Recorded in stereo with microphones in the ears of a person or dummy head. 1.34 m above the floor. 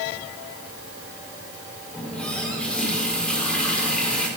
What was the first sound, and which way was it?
A running tap, 5° left (ahead or behind).